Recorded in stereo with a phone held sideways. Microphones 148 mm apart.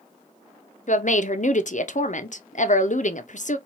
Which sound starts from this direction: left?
A woman speaking, at 0.9 s.